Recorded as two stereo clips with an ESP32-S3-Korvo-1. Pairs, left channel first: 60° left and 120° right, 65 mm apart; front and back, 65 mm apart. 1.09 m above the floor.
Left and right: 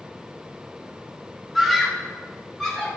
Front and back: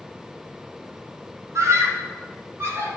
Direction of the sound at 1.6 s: 150° left.